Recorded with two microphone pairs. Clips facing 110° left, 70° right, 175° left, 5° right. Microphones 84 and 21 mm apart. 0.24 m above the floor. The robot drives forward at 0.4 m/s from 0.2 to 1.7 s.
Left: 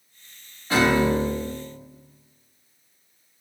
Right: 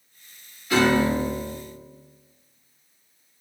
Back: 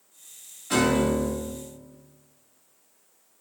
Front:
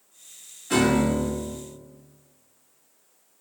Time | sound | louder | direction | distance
0.7 | a piano | even, front 1 dB | 100° left | 1.3 m